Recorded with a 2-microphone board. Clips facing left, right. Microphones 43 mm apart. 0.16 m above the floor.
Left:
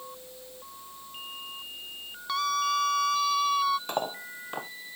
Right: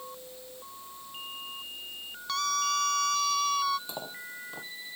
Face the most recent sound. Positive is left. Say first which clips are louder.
# left 8 dB
turn(degrees=60)  # may be behind; listen again after turning